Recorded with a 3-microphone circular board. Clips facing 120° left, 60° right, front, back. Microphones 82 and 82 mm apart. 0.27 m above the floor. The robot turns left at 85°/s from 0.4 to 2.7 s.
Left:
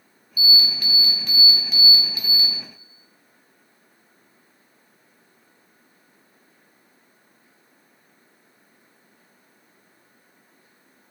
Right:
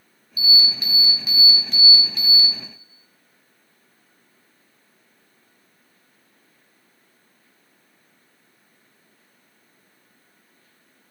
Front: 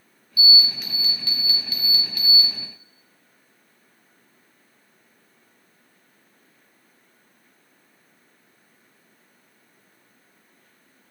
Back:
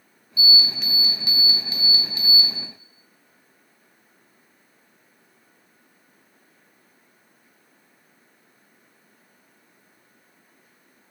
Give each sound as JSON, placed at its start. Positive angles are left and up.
{"t": 0.4, "sound": "an alarm", "azimuth_deg": -50, "distance_m": 0.7}